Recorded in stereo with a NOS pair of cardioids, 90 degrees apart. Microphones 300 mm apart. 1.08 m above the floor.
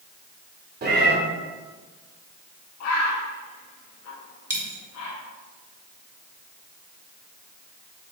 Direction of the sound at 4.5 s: 10° right.